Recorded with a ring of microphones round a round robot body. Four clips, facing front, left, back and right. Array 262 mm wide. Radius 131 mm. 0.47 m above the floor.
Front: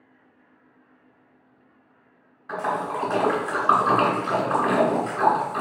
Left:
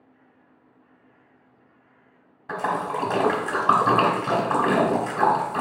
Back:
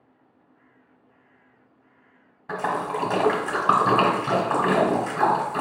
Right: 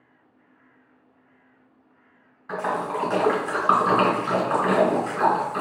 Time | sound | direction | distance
2.5 | a splash | 135° left | 1.5 m